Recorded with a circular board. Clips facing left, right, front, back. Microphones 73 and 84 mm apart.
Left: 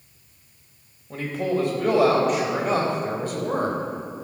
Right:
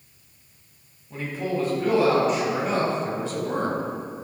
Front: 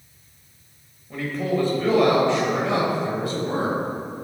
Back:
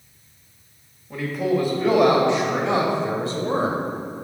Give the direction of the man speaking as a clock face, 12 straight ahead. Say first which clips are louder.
Left 3 dB, back 2 dB; 9 o'clock.